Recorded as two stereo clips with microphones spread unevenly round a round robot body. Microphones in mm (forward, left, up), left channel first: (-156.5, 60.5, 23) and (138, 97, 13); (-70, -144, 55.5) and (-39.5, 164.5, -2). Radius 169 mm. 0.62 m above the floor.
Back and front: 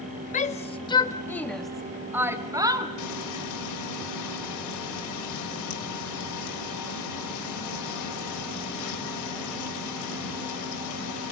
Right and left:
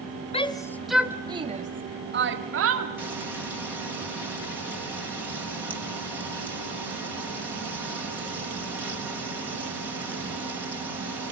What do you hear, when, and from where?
0.3 s a shout: 165° right, 1.0 m; by 2.9 s 80° left, 1.6 m
3.0 s frying: 165° left, 3.5 m